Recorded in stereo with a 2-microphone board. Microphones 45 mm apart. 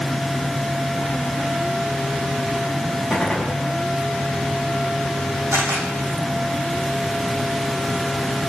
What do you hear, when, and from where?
3.1 s a gunshot: 10° right (ahead or behind), 5.5 m
5.5 s a camera shutter: 85° right, 6.5 m